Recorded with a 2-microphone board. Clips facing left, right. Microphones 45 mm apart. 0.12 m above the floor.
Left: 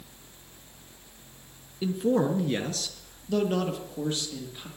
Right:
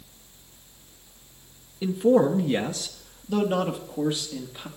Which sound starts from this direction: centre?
A man speaking, at 1.8 s.